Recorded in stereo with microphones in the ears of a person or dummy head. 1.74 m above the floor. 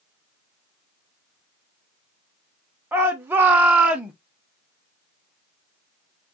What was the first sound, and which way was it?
A shout, 10° right (ahead or behind).